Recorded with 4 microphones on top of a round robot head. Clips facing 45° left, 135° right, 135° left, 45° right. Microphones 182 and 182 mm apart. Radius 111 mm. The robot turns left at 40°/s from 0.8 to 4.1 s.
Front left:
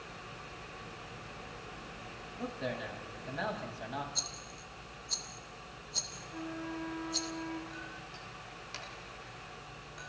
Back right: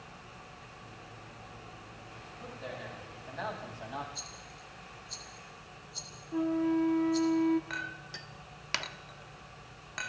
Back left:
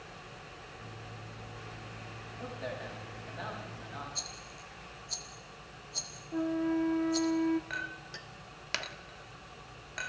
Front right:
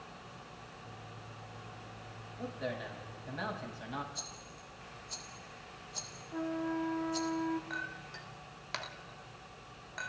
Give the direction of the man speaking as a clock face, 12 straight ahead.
11 o'clock.